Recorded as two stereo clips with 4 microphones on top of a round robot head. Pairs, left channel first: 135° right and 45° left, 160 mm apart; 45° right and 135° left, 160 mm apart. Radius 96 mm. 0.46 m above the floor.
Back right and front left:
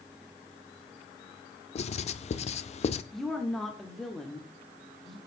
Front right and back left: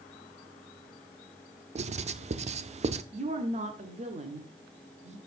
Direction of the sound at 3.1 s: 135° left.